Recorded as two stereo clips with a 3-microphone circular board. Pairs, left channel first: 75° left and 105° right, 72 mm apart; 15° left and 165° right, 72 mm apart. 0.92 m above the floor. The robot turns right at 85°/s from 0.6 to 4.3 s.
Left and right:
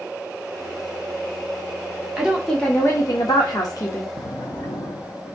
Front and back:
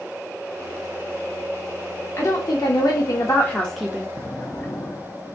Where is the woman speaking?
35° right, 0.9 m; by 4.1 s 130° left, 0.9 m.